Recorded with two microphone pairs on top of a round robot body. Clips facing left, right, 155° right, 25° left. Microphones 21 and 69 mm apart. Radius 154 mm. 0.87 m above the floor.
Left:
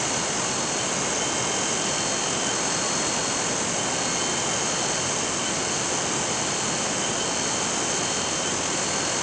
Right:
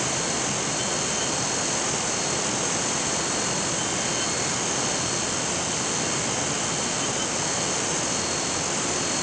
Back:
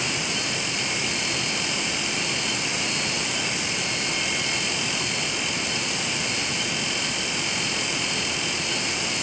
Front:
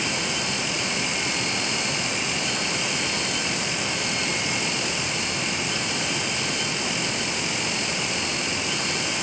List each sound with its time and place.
Only background noise.